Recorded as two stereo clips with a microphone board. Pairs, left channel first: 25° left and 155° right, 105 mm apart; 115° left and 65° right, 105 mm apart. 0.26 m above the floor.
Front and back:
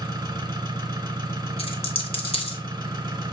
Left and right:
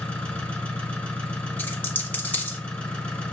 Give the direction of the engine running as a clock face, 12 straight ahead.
6 o'clock.